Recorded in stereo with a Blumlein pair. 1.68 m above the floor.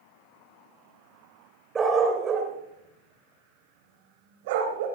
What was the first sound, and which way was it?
A dog barking, 15° right.